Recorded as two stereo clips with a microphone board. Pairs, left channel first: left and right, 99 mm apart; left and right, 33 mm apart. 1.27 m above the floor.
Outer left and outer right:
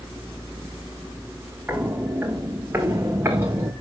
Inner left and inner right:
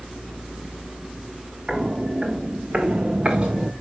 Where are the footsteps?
20° right (ahead or behind), 6 m; by 3.7 s 25° right (ahead or behind), 4 m.